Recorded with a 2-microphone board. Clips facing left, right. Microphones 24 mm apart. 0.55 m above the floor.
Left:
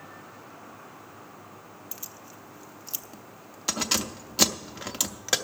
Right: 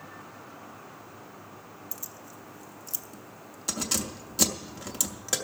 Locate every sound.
1.9 s keys jangling: 35° left (ahead or behind), 0.6 m